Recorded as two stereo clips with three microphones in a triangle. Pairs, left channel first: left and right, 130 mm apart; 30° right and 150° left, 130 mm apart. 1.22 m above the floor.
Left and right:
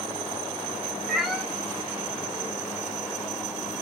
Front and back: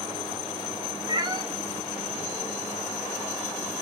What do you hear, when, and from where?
1.1 s a cat meowing: straight behind, 0.5 m